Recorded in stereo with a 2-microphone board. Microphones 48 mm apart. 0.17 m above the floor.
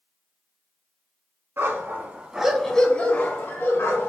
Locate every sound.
1.6 s a dog barking: 50° right (ahead or behind), 0.7 m; by 4.1 s 55° left (ahead or behind), 1.0 m